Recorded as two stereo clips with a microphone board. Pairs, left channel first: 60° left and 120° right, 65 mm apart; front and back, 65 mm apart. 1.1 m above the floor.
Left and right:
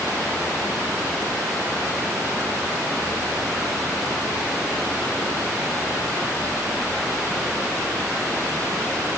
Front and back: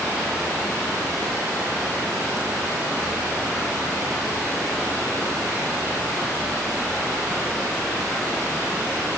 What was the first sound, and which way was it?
Only background noise.